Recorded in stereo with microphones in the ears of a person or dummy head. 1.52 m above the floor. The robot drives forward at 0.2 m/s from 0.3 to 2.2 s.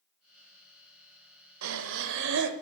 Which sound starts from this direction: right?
Breathing, at 1.6 s.